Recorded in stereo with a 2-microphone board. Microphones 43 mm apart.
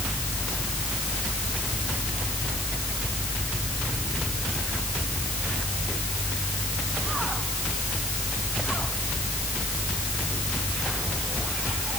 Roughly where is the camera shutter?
No camera shutter in this recording.